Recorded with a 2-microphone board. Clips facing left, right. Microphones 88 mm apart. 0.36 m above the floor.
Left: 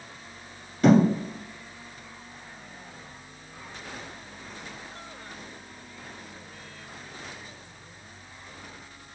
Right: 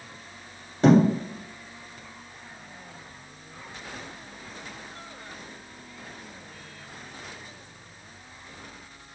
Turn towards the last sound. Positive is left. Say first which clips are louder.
# right 1 dB
turn(degrees=-30)  # may be behind; listen again after turning